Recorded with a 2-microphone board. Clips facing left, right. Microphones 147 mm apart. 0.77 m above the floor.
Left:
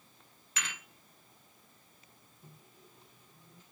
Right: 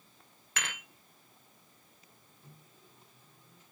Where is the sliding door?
I don't hear a sliding door.